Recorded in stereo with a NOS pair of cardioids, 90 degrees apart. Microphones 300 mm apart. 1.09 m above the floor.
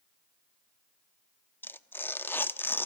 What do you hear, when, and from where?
1.6 s tearing paper: 5° left, 1.1 m